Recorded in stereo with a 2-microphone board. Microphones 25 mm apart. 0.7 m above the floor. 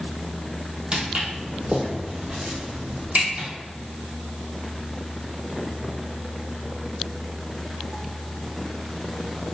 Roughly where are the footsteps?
Right.